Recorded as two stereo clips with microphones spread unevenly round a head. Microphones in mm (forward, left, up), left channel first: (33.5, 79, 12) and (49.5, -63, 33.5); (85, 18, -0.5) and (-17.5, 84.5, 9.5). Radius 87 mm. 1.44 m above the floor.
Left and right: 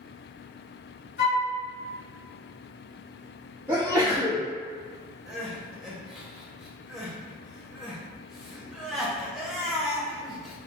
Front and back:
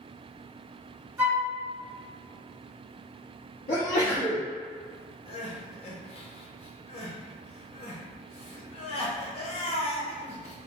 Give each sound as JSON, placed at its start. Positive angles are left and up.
{"t": 1.2, "sound": "a flute", "azimuth_deg": 80, "distance_m": 1.6}
{"t": 3.7, "sound": "a sneeze", "azimuth_deg": -10, "distance_m": 0.7}
{"t": 5.3, "sound": "crying", "azimuth_deg": 0, "distance_m": 0.6}